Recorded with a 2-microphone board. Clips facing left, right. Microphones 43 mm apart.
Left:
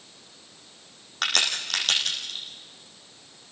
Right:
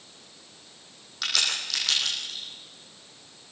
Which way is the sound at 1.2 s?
50° left (ahead or behind).